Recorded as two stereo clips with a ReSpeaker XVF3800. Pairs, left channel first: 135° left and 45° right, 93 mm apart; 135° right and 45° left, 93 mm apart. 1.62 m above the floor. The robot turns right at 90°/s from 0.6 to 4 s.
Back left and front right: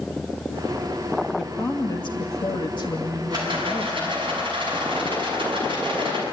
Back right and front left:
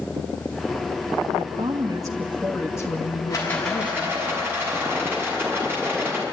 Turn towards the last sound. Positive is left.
turn(degrees=-20)